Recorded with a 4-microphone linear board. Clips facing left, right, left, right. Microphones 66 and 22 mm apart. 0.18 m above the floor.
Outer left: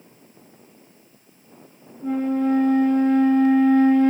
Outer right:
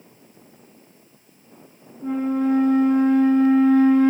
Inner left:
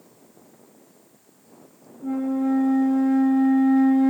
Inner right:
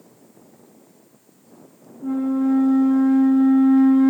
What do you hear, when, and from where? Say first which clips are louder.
2.0 s a flute: even, inner right 3 dB; 10° right (ahead or behind), 0.8 m